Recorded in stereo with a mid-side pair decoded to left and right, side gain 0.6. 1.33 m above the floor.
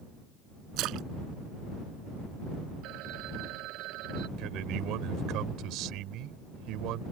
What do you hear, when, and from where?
0.8 s a splash: 65° right
2.8 s a phone ringing: 65° right
4.4 s a man speaking: 65° right